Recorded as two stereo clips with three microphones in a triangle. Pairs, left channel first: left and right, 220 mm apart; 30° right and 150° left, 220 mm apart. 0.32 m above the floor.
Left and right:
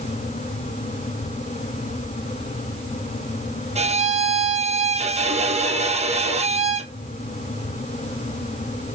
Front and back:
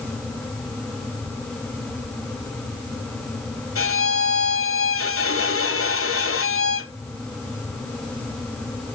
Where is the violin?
25° right, 0.5 m.